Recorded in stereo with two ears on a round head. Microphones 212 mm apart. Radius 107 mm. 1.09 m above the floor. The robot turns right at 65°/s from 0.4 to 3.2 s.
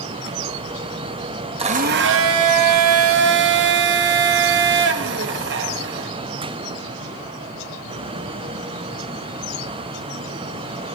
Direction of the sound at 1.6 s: 155° right.